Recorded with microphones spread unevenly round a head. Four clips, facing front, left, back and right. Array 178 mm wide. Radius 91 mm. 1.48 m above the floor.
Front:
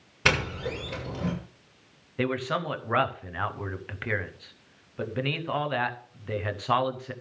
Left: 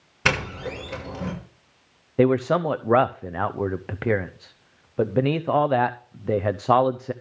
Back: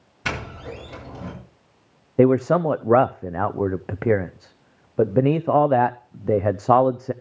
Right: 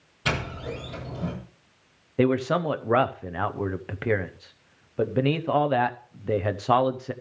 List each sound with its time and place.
0.2 s a doorbell: 45° left, 7 m
2.2 s a man speaking: 165° left, 0.5 m